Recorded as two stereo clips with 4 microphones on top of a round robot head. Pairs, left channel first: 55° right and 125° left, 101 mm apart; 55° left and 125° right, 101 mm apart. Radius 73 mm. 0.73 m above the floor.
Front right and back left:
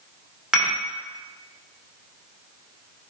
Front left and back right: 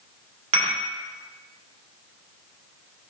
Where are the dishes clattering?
150° right, 1.5 m.